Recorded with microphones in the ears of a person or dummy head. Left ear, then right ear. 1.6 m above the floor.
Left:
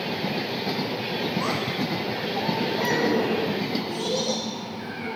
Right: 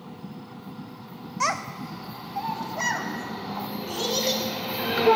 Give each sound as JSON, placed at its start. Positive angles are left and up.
{"t": 1.4, "sound": "a child speaking", "side_deg": -50, "distance_m": 0.9}